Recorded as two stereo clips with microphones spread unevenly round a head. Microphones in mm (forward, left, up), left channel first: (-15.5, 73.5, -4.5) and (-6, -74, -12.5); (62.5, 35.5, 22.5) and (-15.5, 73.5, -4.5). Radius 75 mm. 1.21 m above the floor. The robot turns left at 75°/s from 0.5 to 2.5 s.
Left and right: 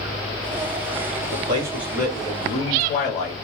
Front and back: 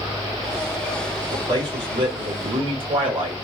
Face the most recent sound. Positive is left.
turn(degrees=140)